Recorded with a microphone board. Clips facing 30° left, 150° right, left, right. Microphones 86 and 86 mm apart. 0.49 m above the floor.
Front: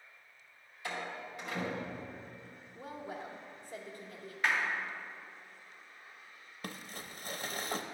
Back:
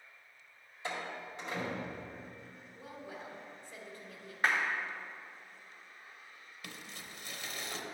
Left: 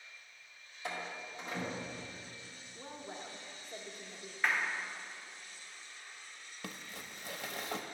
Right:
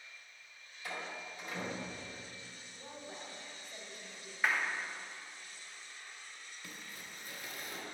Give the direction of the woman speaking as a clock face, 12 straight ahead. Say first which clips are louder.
Front 4 dB, left 2 dB; 9 o'clock.